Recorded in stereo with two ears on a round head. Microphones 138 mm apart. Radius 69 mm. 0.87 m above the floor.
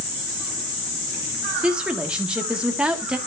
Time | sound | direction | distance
1.6 | a woman speaking | 5° right (ahead or behind) | 1.5 m